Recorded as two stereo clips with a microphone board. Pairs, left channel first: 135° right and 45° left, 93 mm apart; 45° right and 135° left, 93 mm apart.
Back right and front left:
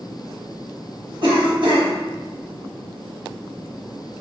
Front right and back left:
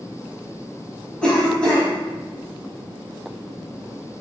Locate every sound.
1.2 s a cough: 30° left, 1.2 m